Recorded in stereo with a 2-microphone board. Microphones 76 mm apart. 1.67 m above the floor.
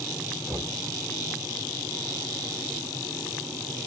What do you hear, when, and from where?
0.5 s knocking: 15° left (ahead or behind), 3 m